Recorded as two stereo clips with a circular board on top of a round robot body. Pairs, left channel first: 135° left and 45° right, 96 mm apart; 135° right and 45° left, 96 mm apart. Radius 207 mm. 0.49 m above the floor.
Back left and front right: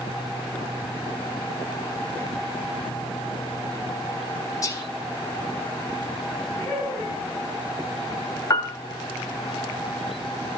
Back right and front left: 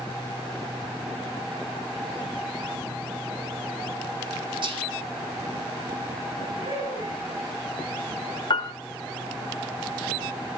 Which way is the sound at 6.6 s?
45° left.